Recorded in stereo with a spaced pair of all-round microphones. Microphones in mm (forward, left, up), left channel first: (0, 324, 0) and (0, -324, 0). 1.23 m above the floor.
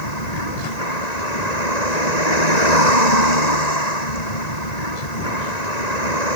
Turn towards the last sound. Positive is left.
turn(degrees=90)